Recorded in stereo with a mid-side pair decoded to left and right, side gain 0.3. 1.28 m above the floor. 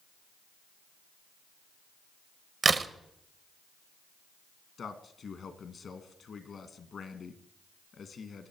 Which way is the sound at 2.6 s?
50° right.